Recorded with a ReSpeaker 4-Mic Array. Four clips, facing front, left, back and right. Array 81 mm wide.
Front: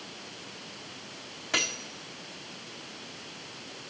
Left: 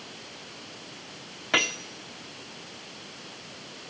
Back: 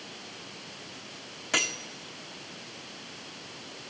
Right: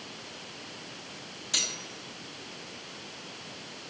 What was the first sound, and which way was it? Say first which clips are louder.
Cutlery clinking: left 13 dB, back 1 dB; 95° left.